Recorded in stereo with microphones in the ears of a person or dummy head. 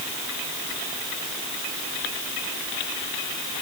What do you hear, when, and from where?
Only background noise.